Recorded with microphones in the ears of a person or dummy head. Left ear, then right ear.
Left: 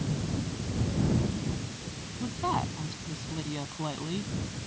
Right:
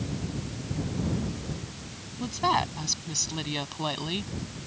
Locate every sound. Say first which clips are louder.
2.2 s a woman speaking: right 5 dB; 75° right (ahead or behind)